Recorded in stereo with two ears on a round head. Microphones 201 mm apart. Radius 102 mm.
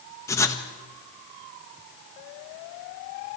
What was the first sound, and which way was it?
Writing, 15° left (ahead or behind).